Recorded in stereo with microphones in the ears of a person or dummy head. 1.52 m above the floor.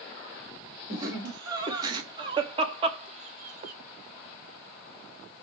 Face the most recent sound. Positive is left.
turn(degrees=-50)  # may be behind; listen again after turning